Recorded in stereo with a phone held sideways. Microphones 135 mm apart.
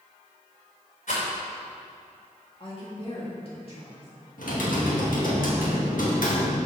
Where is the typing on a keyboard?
80° left, 1.8 m.